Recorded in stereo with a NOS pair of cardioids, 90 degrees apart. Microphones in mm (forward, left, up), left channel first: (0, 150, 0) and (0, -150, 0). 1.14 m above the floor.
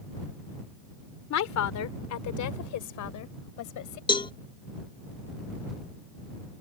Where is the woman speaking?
65° left; by 4.0 s 80° left.